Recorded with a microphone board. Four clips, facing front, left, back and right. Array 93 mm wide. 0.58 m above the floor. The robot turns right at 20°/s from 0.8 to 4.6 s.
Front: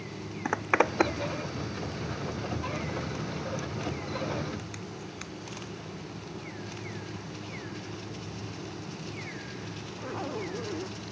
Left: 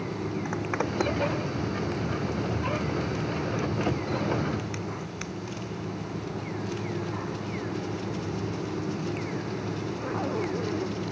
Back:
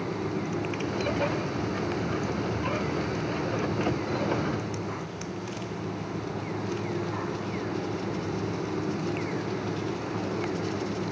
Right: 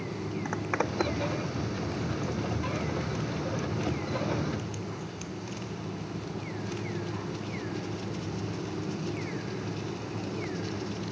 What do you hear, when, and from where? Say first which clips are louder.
0.5 s a zipper: right 1 dB, front 3 dB; straight ahead; by 10.9 s 75° left